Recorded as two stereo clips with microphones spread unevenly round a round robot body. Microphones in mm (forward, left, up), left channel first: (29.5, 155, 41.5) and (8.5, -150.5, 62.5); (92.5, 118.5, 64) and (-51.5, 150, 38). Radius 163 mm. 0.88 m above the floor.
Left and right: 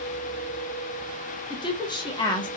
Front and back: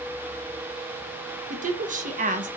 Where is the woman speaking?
160° left, 0.9 m.